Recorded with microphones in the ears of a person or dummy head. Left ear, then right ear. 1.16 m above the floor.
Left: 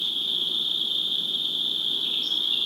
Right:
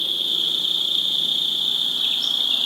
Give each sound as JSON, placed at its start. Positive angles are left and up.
{"t": 0.0, "sound": "an insect", "side_deg": -55, "distance_m": 1.9}